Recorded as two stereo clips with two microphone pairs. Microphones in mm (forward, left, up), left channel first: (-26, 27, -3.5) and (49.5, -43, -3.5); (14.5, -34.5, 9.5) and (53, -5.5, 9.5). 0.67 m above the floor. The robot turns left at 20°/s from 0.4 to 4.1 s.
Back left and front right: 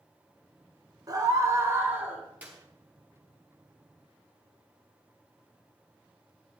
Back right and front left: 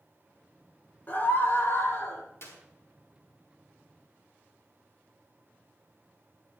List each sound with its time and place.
1.1 s a scream: 95° right, 3 m; by 2.2 s 120° right, 3 m
2.4 s a clap: 120° right, 5 m